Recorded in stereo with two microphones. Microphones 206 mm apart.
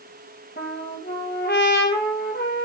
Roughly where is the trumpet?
Left.